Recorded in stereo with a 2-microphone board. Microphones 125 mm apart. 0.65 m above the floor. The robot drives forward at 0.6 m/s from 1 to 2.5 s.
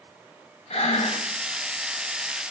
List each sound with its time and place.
0.7 s breathing: 60° left (ahead or behind), 1.1 m; by 1.2 s 55° left (ahead or behind), 1.2 m